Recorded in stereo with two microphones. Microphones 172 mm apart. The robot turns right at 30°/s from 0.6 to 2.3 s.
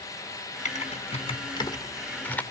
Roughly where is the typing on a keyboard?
Left.